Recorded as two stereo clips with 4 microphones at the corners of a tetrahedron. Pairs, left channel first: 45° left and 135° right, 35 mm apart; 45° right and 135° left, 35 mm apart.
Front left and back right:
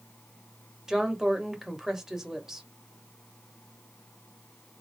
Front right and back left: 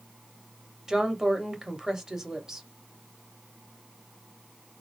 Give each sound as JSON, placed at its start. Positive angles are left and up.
{"t": 0.9, "sound": "a woman speaking", "azimuth_deg": 180, "distance_m": 0.9}